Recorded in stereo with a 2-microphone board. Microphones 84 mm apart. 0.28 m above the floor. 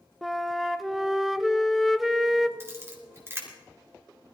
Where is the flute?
Centre (ahead or behind), 0.5 m.